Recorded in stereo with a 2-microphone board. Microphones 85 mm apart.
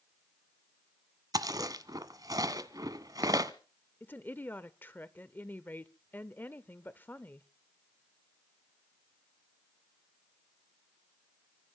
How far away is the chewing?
About 1.3 m.